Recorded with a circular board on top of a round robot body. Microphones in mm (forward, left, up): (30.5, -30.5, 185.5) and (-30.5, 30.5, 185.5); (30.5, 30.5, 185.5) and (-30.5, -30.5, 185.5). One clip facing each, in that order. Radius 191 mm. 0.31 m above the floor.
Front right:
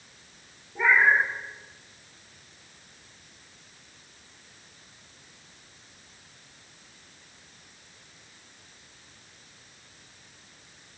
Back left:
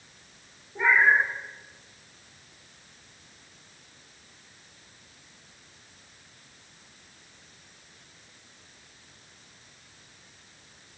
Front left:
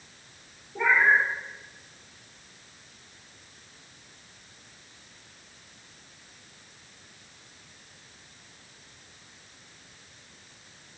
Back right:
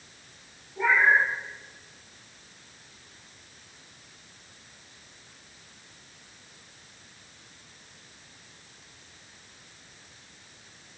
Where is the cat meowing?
60° left, 4 m.